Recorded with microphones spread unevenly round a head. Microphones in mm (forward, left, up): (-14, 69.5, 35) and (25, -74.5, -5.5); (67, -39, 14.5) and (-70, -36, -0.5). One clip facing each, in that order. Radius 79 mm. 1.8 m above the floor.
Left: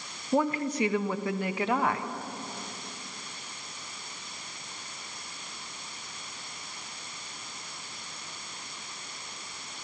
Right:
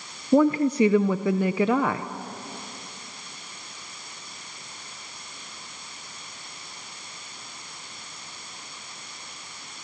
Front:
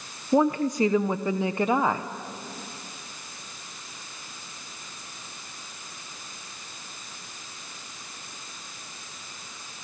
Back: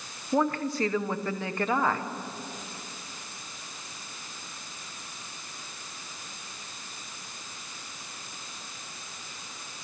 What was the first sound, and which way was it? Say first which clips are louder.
A woman speaking: right 8 dB, front 5 dB; 70° right.